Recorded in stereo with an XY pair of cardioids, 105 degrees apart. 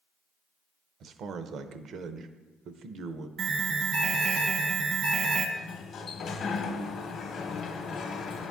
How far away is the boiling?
I don't hear boiling.